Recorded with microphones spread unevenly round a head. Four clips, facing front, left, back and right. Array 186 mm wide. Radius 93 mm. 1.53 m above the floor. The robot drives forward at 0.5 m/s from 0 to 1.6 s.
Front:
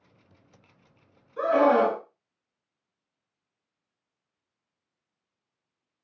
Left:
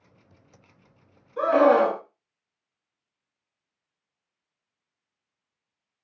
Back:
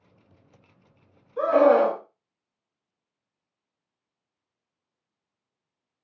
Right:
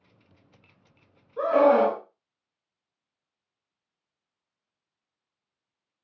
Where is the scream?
95° left, 1.5 m; by 2.0 s 100° left, 1.5 m.